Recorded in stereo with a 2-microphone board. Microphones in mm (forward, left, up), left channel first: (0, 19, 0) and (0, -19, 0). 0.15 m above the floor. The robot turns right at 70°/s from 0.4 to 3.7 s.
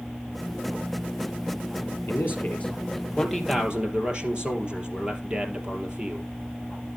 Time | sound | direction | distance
2.1 | a man speaking | 90° left | 4 m